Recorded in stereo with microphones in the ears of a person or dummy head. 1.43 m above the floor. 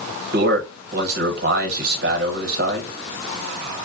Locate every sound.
0.3 s a man speaking: 55° right (ahead or behind), 1.0 m